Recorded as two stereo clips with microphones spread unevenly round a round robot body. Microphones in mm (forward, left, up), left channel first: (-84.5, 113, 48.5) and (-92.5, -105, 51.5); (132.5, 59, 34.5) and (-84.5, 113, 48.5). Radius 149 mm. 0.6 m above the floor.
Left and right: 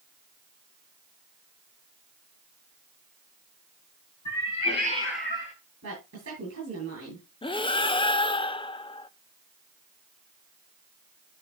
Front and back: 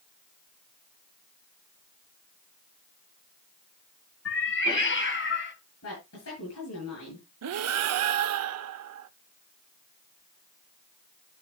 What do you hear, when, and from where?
4.2 s a cat meowing: 15° left, 1.8 m; by 5.5 s 25° left, 2.5 m
5.8 s a woman speaking: 50° right, 9.5 m
7.4 s breathing: 155° left, 0.7 m